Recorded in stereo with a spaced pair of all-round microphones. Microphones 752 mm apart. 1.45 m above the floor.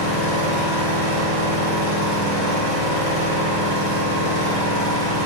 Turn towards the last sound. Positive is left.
turn(degrees=-55)  # may be behind; listen again after turning